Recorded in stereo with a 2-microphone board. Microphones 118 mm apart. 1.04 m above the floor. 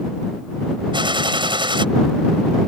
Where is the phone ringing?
No phone ringing in this recording.